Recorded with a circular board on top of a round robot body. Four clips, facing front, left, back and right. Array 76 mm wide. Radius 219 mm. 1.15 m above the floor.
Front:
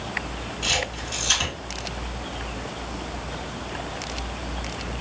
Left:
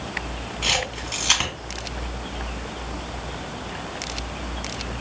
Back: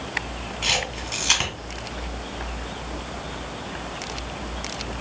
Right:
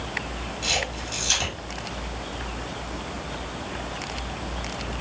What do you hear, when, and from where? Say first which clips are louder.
0.6 s a camera shutter: left 3 dB, back 1 dB; 130° left, 1.7 m